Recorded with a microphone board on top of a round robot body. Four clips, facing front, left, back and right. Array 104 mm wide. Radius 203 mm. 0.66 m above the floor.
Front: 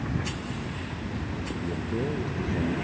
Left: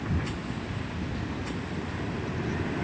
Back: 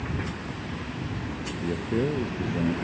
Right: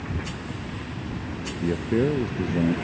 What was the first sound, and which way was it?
A man speaking, 105° right.